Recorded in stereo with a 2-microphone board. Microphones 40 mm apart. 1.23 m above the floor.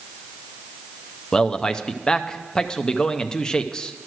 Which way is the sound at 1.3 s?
20° left (ahead or behind).